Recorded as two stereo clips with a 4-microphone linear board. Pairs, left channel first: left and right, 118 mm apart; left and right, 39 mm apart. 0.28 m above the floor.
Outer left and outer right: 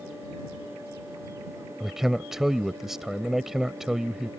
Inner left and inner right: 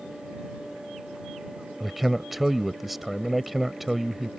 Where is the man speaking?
5° right (ahead or behind).